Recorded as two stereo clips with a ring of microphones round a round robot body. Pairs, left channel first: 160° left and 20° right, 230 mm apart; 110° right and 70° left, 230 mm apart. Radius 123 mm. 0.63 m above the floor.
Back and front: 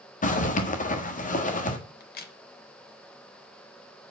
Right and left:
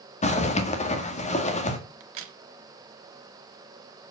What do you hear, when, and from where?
0.2 s a zipper: 160° right, 1.5 m
2.0 s a crack: 105° left, 1.1 m